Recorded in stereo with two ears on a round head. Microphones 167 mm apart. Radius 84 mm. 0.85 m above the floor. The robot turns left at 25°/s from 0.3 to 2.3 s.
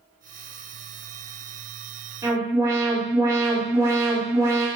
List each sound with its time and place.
2.2 s an alarm: 15° right (ahead or behind), 2.5 m